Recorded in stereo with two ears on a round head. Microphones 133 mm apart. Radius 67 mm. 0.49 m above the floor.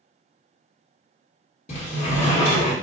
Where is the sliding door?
50° left (ahead or behind), 1.9 m.